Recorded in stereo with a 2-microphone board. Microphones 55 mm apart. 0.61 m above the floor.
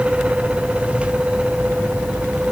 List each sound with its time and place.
Only background noise.